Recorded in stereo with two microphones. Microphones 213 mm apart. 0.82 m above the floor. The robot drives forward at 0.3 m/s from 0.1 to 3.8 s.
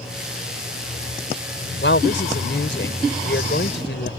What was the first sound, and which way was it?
A woman speaking, 65° left (ahead or behind).